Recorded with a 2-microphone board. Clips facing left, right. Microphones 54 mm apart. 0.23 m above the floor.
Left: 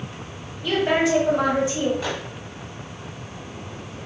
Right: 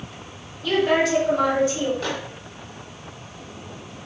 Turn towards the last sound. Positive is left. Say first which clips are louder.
# even
turn(degrees=10)  # may be behind; listen again after turning